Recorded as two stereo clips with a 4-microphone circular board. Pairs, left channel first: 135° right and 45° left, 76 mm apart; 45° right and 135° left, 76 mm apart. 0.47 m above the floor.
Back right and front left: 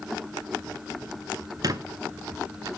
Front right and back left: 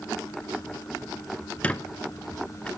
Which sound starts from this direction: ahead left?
A squeak, at 1.6 s.